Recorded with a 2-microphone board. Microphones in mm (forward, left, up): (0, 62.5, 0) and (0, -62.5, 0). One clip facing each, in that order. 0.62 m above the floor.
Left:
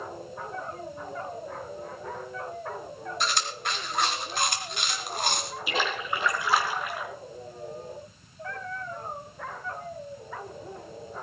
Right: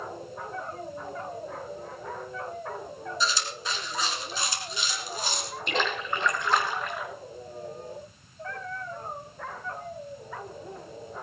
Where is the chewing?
70° left (ahead or behind), 2.5 m.